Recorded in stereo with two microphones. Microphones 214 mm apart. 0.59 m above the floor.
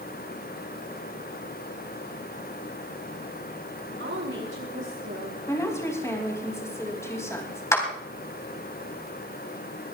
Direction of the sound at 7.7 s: 15° left (ahead or behind).